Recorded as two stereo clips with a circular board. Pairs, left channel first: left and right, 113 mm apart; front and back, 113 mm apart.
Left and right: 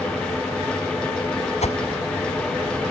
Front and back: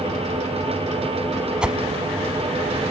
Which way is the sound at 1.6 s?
95° left.